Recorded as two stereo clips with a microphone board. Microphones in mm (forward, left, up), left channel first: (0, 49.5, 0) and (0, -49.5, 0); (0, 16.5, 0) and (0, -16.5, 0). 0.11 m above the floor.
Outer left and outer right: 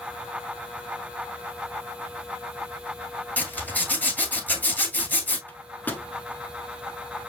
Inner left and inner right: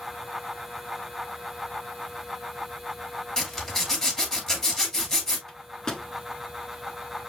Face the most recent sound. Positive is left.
turn(degrees=20)  # may be behind; listen again after turning